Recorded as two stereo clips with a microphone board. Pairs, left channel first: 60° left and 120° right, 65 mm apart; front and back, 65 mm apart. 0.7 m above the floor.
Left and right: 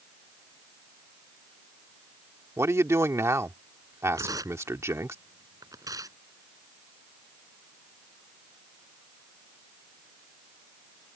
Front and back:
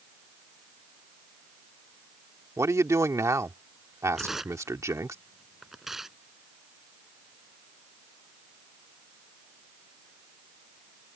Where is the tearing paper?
95° right.